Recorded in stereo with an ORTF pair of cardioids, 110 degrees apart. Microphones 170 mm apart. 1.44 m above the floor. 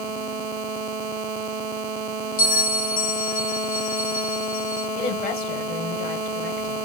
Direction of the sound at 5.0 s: 60° left.